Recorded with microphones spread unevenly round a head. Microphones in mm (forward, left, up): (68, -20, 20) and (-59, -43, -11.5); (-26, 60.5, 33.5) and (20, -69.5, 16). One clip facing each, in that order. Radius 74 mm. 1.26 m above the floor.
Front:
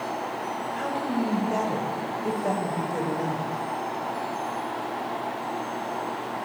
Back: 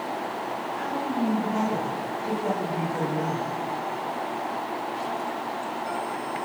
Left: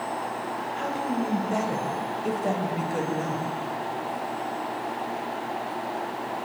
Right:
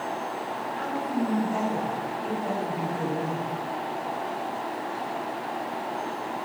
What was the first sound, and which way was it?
A woman speaking, 50° left.